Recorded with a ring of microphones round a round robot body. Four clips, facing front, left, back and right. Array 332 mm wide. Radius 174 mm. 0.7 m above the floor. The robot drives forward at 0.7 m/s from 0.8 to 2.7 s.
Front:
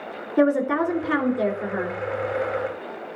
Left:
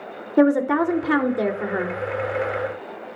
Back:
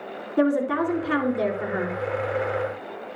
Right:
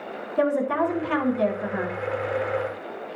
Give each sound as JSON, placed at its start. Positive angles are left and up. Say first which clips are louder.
{"t": 0.4, "sound": "a woman speaking", "louder": "left 5 dB, front 2 dB", "azimuth_deg": 85, "distance_m": 2.5}